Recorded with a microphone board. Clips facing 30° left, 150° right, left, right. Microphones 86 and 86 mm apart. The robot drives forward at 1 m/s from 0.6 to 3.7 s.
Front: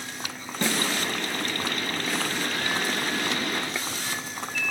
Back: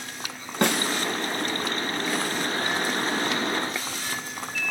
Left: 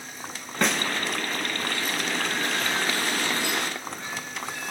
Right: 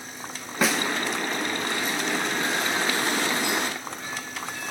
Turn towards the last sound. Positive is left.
turn(degrees=180)